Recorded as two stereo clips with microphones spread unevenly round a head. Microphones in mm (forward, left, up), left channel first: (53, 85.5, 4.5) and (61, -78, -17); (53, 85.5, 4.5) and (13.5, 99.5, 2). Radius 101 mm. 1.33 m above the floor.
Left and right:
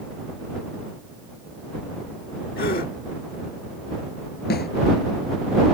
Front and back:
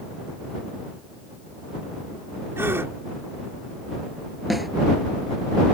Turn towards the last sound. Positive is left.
turn(degrees=70)